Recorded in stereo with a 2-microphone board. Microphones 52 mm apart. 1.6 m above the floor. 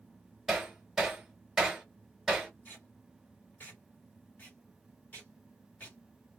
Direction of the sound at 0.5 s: 5° right (ahead or behind).